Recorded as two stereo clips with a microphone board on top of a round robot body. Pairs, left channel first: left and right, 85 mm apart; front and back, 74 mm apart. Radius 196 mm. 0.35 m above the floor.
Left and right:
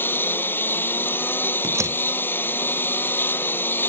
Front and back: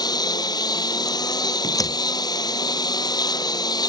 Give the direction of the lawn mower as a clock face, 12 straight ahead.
11 o'clock.